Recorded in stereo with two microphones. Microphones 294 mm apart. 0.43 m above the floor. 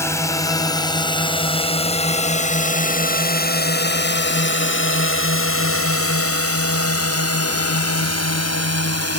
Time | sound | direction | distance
0.0 | a drone | 10° left (ahead or behind) | ?